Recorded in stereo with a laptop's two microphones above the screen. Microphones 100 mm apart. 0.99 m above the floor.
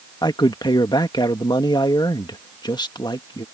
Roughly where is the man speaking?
Left.